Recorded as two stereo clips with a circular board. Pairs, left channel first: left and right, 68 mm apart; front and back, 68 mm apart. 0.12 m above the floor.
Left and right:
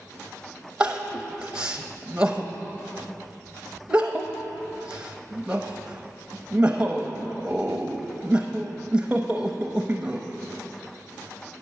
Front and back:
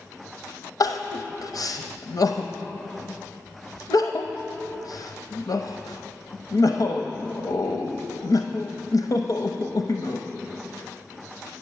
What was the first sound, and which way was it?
Crying, 10° right.